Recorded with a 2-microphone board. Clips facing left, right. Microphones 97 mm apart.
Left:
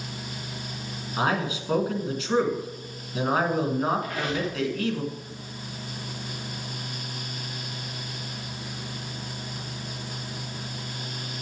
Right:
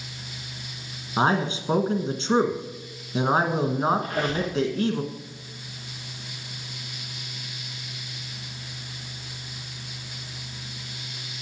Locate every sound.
1.2 s a man speaking: 30° right (ahead or behind), 1.2 m
4.0 s a squeak: 30° right (ahead or behind), 3 m